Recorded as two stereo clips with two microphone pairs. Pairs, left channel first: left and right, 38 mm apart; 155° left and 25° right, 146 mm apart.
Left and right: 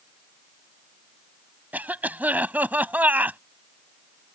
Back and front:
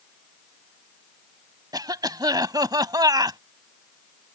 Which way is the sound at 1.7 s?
80° right.